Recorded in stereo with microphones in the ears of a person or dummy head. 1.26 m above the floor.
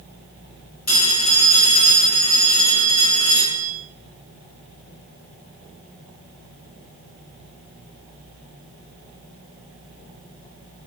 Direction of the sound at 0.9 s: 45° left (ahead or behind).